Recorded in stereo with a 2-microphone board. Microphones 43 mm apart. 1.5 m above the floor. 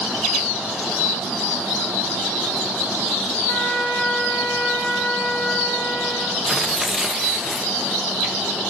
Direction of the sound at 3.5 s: 60° left (ahead or behind).